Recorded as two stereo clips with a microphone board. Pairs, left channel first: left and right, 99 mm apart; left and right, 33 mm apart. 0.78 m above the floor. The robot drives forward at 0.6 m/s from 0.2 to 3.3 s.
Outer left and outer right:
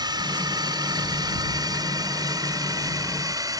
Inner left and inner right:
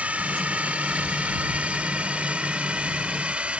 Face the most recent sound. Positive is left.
turn(degrees=-40)  # may be behind; listen again after turning